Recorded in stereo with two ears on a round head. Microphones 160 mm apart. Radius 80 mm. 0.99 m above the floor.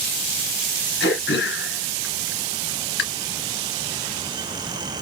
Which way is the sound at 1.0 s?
70° left (ahead or behind).